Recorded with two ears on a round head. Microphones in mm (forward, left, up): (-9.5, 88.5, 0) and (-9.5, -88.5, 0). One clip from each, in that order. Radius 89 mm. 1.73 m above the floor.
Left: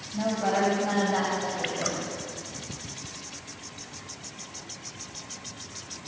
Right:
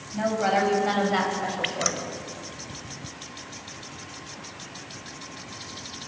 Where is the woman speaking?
60° right (ahead or behind), 10 m; by 2.1 s 70° right (ahead or behind), 7.5 m.